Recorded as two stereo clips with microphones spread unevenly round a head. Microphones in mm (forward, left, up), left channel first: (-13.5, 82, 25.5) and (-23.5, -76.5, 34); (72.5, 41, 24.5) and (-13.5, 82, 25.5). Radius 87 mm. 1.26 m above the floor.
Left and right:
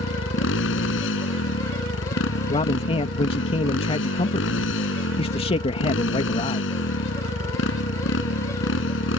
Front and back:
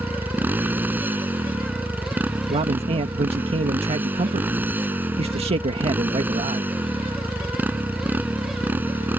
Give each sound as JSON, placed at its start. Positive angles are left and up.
{"t": 0.0, "sound": "a motorcycle", "azimuth_deg": 85}
{"t": 2.5, "sound": "a man speaking", "azimuth_deg": 140}